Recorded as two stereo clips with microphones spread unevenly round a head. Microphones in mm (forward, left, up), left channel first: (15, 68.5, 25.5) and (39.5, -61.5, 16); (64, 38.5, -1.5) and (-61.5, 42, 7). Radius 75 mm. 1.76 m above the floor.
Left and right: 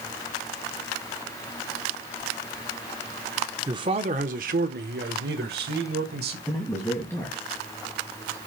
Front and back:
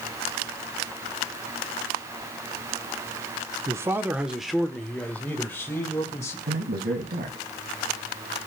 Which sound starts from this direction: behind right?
A man speaking, at 3.7 s.